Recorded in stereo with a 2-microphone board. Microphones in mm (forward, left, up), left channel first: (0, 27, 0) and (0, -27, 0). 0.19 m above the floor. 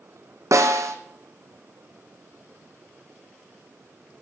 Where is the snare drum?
75° right (ahead or behind), 1.6 m.